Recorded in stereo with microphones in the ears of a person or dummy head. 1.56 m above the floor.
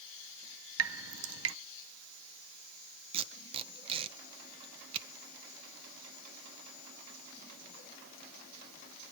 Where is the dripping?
85° right, 0.7 m.